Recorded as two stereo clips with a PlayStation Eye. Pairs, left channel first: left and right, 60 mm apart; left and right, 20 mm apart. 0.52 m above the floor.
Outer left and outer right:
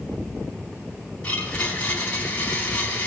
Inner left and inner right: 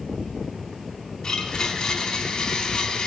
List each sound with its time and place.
1.2 s a blender: 25° left (ahead or behind), 3.5 m